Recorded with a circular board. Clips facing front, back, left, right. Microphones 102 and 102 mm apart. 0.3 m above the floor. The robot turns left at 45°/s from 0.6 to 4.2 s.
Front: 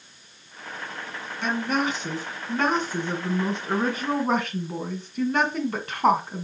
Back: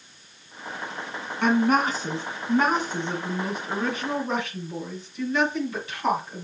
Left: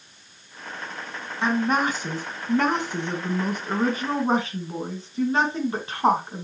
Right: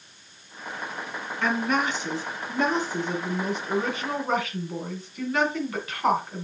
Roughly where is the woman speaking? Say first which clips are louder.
Back 5 dB, left 3 dB; behind left.